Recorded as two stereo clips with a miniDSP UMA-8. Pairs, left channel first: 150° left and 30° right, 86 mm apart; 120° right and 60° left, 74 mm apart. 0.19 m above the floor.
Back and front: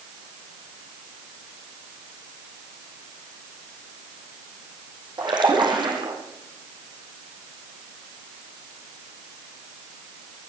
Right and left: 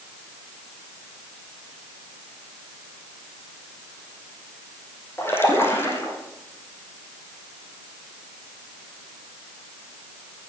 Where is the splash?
60° right, 3.5 m.